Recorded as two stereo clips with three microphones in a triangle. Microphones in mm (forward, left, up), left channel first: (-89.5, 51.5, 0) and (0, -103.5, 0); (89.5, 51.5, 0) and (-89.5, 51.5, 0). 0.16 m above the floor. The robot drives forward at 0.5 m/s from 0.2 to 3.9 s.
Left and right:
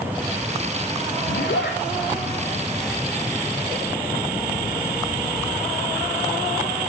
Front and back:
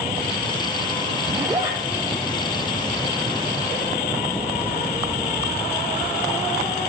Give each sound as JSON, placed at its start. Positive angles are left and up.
{"t": 1.3, "sound": "a zipper", "azimuth_deg": 105, "distance_m": 1.4}